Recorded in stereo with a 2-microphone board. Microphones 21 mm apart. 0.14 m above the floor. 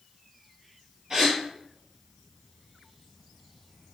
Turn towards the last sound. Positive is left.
turn(degrees=-25)  # may be behind; listen again after turning